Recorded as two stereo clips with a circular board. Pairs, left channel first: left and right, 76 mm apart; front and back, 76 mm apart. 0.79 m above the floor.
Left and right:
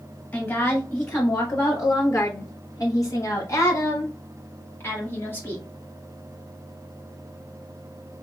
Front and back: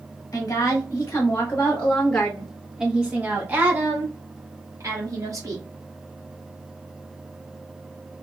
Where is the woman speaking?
35° left, 1.6 m; by 5.6 s 150° left, 2 m.